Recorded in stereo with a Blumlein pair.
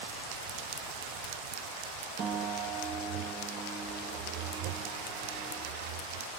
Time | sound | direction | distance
2.2 | a piano | 30° right | 1.0 m